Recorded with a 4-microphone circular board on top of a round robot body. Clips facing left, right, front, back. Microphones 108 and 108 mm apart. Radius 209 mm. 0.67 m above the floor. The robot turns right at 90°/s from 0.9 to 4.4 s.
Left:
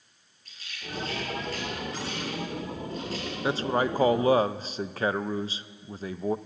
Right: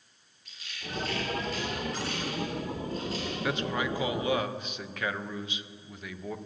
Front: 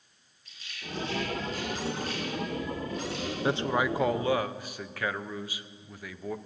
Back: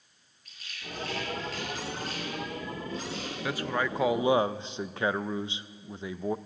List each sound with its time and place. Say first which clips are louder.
0.5 s a rattle: left 1 dB, front 2 dB; 140° left, 5 m; by 3.3 s straight ahead, 5 m
3.4 s a man speaking: left 6 dB, front 4 dB; 40° left, 0.6 m; by 6.4 s 125° left, 0.6 m